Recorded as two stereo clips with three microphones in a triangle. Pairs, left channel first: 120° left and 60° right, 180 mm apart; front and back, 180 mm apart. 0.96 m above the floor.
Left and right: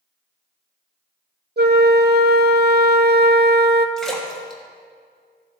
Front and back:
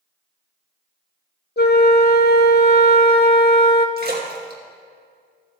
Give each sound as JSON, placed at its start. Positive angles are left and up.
{"t": 1.6, "sound": "a flute", "azimuth_deg": -30, "distance_m": 0.5}
{"t": 4.0, "sound": "a splash", "azimuth_deg": -155, "distance_m": 1.4}